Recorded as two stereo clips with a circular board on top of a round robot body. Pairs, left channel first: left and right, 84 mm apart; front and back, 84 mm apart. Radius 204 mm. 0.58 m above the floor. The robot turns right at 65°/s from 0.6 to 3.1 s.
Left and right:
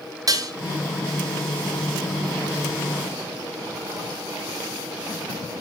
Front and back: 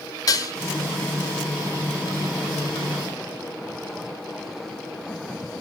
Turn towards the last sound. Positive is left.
turn(degrees=120)